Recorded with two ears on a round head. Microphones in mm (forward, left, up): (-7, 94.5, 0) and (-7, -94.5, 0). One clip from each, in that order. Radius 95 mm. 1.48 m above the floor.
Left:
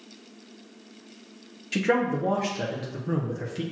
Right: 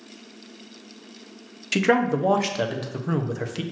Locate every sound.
1.7 s a man speaking: 35° right (ahead or behind), 0.6 m